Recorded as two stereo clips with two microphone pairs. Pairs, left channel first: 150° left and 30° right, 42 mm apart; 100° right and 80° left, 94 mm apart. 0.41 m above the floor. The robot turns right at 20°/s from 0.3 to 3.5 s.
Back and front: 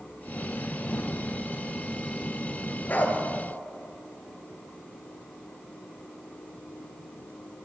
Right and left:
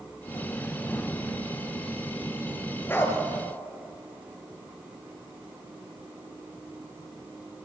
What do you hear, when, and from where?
2.9 s a dog barking: 165° right, 2.5 m; by 3.2 s 160° right, 2.5 m